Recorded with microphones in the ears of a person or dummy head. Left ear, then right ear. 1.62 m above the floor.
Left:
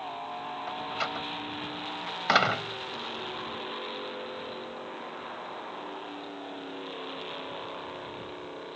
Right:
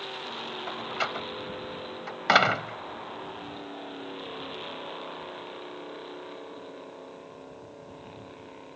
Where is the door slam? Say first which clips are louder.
Right 2 dB; 10° right (ahead or behind).